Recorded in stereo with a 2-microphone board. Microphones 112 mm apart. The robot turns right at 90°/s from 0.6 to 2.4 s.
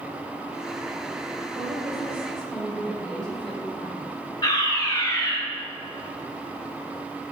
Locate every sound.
1.6 s a woman speaking: 70° right, 5 m; by 4.0 s 5° left, 5 m
4.4 s a fire alarm: 40° left (ahead or behind), 3.5 m